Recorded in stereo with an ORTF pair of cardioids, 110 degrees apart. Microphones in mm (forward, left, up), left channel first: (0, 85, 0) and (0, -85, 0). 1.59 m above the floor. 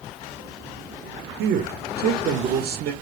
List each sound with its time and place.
1.4 s a man speaking: 70° right, 0.6 m